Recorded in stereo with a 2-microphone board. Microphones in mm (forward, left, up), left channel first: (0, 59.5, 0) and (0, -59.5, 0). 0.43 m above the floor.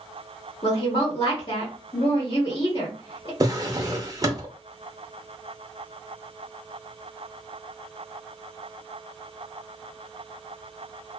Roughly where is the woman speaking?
Left.